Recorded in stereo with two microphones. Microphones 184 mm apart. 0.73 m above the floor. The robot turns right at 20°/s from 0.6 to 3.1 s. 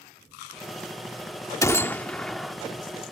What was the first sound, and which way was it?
A gunshot, 15° left (ahead or behind).